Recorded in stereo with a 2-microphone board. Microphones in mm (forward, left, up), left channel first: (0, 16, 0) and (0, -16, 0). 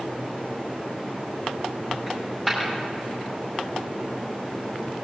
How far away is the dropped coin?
About 5 m.